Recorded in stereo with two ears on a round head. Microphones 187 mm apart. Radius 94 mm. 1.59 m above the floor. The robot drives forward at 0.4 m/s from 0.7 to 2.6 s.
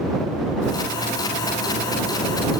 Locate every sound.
Only background noise.